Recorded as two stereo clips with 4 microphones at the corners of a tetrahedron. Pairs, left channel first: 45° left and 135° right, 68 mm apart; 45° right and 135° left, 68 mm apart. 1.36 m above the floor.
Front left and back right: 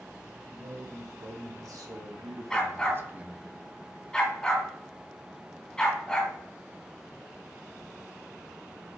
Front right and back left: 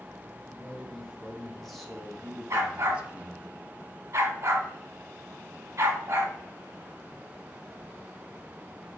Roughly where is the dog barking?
Behind left.